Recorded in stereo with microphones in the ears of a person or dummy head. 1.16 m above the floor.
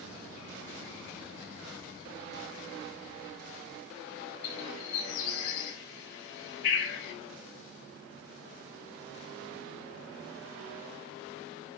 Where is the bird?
70° left (ahead or behind), 4 m.